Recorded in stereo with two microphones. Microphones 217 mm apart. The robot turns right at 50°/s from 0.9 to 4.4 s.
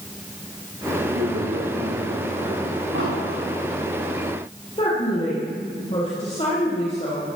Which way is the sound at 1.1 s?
85° right.